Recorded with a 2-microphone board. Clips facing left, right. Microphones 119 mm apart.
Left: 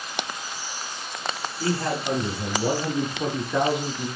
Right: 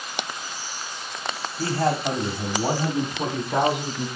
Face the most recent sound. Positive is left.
turn(degrees=-75)  # may be behind; listen again after turning